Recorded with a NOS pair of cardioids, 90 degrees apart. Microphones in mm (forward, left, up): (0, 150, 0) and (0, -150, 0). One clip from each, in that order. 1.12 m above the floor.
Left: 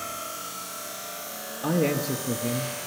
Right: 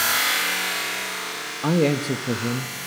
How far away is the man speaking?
About 1.1 m.